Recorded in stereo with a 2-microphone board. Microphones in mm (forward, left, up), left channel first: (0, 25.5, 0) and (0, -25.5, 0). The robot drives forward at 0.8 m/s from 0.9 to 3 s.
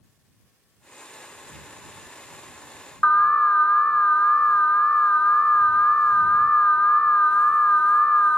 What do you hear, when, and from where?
3.0 s an alarm: 30° left (ahead or behind), 0.9 m